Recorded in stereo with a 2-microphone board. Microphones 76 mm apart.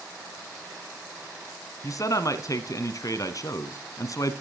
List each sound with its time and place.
1.8 s a man speaking: 50° left (ahead or behind), 1.7 m